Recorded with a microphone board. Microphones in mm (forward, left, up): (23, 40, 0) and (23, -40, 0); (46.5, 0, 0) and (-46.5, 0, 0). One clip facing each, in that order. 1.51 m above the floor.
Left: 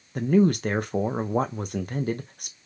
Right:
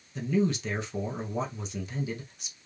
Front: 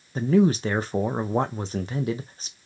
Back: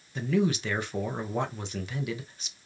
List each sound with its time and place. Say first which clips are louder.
0.1 s a man speaking: left 7 dB, front 7 dB; 55° left, 0.6 m